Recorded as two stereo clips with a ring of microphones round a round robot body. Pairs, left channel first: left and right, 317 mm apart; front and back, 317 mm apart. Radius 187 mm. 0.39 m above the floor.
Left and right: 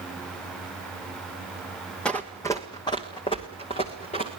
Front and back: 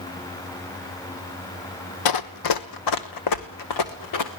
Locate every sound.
2.0 s running footsteps: 5° left, 1.0 m; by 4.3 s 20° left, 2.5 m